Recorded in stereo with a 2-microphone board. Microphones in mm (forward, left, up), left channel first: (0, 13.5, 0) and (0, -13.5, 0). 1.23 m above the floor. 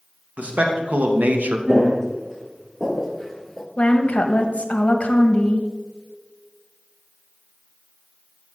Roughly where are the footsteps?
Right.